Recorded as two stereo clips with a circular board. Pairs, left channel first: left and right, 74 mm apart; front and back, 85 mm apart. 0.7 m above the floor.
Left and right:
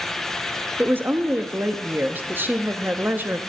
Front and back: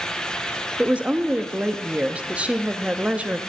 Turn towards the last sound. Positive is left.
turn(degrees=-120)